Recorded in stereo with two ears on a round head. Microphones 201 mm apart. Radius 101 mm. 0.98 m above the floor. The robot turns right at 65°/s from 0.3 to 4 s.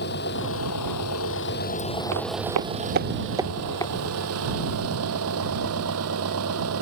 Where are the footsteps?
70° right (ahead or behind); by 3.9 s 25° left (ahead or behind).